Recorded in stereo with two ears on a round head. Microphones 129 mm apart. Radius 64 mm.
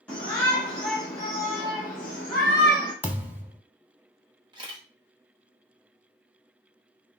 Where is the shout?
10° left (ahead or behind), 1.4 m; by 2.9 s 10° right (ahead or behind), 1.8 m.